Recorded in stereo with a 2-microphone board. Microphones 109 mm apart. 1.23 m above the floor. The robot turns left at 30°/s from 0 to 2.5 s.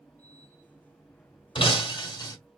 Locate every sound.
1.6 s breaking glass: 50° left (ahead or behind), 1.5 m; by 2.4 s 30° left (ahead or behind), 1.5 m